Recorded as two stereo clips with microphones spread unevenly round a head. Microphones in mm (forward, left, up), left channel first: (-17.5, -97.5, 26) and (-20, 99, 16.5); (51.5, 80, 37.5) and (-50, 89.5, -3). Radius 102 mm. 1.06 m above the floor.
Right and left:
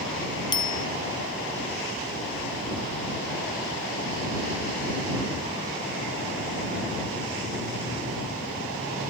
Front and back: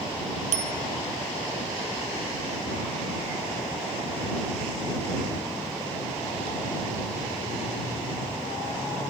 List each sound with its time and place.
0.5 s a bicycle bell: 155° right